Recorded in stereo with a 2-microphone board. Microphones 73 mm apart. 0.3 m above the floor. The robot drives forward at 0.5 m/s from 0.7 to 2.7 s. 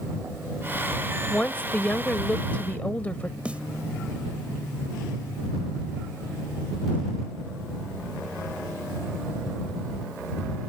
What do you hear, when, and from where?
1.3 s a woman speaking: 20° left (ahead or behind)
3.5 s a snare drum: 15° right (ahead or behind)